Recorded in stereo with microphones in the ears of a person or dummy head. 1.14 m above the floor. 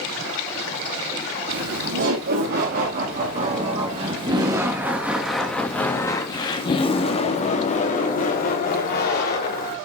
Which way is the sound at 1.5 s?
60° right (ahead or behind).